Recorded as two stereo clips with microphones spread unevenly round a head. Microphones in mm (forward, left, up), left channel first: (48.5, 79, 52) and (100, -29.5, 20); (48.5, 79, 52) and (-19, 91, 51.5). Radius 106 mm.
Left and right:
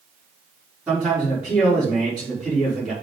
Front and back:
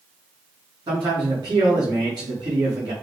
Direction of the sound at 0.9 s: 150° right.